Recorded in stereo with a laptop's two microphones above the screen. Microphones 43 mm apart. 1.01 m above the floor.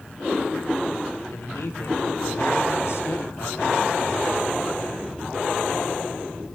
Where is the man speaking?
80° left, 3.5 m; by 4.1 s 70° left (ahead or behind), 2 m.